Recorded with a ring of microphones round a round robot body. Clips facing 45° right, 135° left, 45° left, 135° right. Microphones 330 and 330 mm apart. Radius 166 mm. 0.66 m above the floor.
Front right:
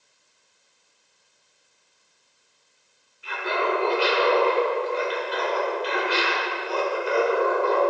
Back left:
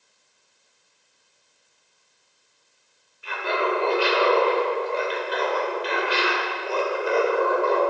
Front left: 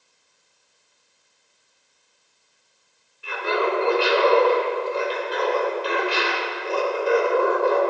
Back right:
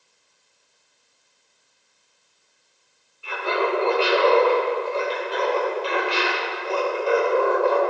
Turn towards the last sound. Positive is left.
turn(degrees=110)